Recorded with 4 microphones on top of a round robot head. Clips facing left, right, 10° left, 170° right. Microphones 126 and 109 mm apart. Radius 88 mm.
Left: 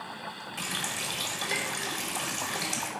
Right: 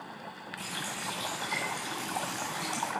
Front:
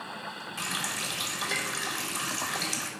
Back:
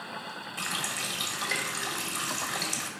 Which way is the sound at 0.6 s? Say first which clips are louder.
Left 2 dB, even; 95° left.